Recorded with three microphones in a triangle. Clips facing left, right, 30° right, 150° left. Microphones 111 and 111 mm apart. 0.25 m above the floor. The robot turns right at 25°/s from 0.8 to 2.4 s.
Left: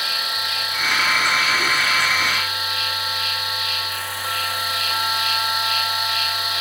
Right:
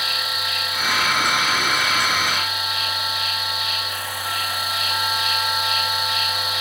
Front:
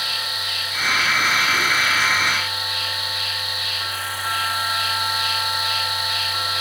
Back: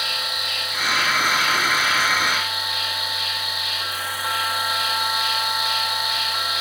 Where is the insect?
175° right, 3.5 m; by 6.6 s 135° right, 3.5 m.